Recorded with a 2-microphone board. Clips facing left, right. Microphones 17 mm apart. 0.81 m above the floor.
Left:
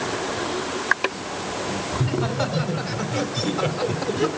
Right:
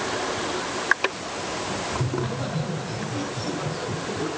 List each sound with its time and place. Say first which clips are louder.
1.9 s laughter: left 3 dB; 45° left (ahead or behind), 4 m; by 4.3 s 55° left (ahead or behind), 2.5 m